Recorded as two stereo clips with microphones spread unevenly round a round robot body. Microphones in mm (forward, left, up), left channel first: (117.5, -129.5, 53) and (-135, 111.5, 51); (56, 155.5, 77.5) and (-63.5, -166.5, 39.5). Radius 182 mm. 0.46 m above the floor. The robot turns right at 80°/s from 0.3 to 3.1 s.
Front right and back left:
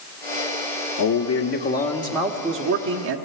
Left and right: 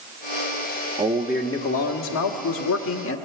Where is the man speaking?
55° right, 1.3 m; by 3.1 s 115° left, 1.3 m.